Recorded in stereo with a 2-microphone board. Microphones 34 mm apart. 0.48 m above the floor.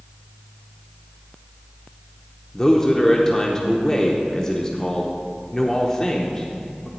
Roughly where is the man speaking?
Left.